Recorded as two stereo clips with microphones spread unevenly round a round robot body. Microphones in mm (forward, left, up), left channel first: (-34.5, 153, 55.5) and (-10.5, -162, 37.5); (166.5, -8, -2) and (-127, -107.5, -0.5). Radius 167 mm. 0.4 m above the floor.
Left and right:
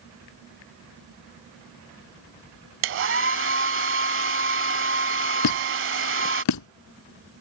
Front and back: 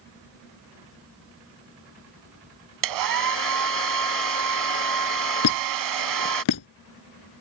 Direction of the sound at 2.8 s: 140° right.